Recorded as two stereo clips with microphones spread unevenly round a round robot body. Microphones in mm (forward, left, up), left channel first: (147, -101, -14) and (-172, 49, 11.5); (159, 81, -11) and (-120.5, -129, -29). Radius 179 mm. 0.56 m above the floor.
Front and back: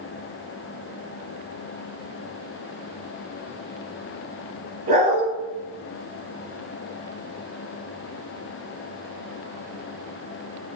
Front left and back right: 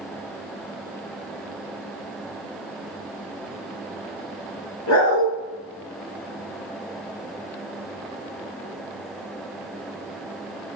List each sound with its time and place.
4.9 s a dog barking: 85° left, 2 m